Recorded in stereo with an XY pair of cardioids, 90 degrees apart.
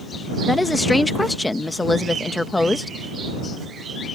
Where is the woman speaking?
20° left.